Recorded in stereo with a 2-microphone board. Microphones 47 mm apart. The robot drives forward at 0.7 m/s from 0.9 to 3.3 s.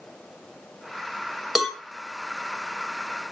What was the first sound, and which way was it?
A cowbell, 5° right (ahead or behind).